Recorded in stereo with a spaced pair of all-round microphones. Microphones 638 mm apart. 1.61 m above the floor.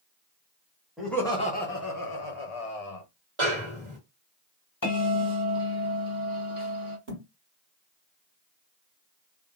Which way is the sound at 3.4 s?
50° right (ahead or behind).